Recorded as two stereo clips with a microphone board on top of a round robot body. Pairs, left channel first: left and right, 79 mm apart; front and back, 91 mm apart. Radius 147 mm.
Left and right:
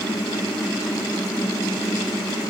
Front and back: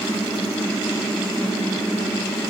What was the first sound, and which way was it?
Only background noise.